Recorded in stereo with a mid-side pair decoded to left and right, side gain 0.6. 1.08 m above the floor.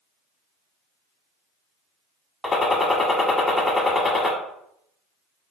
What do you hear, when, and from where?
2.4 s a gunshot: 20° left, 1.2 m